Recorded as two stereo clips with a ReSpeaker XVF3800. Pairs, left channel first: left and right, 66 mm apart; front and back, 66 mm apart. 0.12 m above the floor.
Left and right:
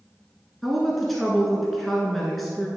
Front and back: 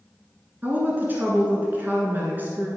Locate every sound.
0.6 s a woman speaking: straight behind, 1.2 m